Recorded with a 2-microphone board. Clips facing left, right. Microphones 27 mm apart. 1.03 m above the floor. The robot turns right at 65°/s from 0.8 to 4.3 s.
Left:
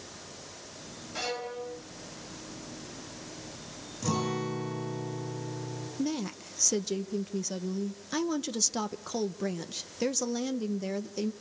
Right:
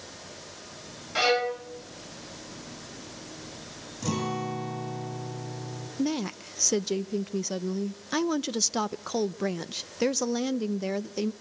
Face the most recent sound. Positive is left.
turn(degrees=-20)  # may be behind; listen again after turning